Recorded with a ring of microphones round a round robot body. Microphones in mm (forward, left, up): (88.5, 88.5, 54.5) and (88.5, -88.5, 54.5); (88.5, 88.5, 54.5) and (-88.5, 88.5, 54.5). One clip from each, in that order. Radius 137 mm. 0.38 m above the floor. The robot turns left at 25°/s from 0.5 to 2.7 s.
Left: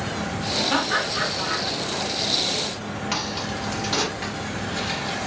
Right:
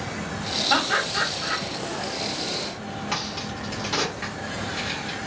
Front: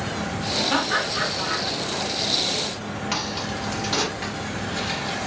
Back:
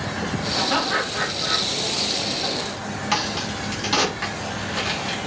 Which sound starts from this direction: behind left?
A crack, at 3.1 s.